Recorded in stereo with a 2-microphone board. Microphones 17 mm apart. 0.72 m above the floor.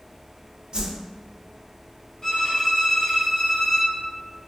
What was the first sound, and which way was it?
A whoosh, 60° right (ahead or behind).